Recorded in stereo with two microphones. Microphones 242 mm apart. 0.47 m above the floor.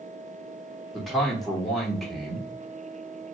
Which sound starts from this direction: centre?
A man speaking, at 0.9 s.